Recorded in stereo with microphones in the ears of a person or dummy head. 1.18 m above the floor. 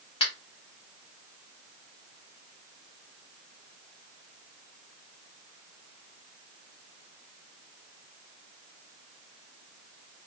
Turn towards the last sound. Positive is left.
turn(degrees=25)  # may be behind; listen again after turning